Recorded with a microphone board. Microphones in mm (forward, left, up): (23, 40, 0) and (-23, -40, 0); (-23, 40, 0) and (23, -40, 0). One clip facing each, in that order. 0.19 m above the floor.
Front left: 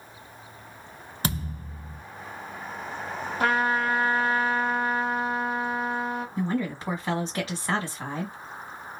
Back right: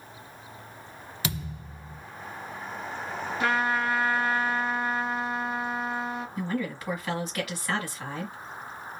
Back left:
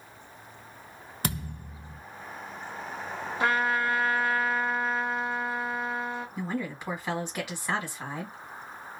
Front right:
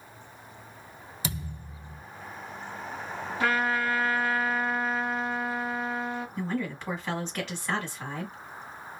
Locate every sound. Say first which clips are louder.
1.2 s a thud: front left 4 dB, back left 3 dB; 100° left, 0.7 m
3.4 s a trumpet: front left 2 dB, back left 1 dB; 60° left, 1.3 m
6.4 s a woman speaking: front left 3 dB, front right 2 dB; 50° left, 1.2 m